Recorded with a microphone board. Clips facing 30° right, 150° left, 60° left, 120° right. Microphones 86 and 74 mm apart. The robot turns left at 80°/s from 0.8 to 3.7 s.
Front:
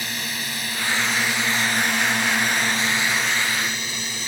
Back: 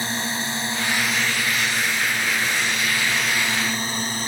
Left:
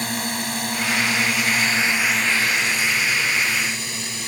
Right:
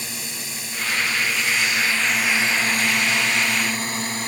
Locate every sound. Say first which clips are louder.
0.0 s a drone: back 4 dB, left 9 dB; 90° left; by 4.3 s 165° right